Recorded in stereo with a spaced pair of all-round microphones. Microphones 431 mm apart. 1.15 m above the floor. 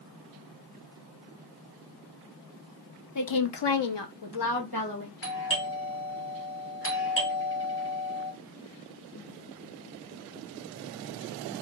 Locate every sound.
3.1 s a woman speaking: 45° left (ahead or behind), 0.6 m; by 5.1 s 50° left (ahead or behind), 1.1 m
5.2 s a doorbell: 30° left (ahead or behind), 1.2 m